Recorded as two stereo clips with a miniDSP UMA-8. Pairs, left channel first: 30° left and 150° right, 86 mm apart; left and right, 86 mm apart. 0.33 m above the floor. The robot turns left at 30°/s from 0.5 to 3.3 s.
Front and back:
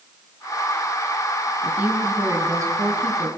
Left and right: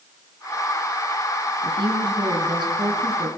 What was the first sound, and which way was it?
A woman speaking, 75° right.